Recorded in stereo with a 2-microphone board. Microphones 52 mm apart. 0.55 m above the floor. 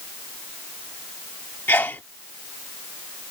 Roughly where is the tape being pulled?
I don't hear tape being pulled.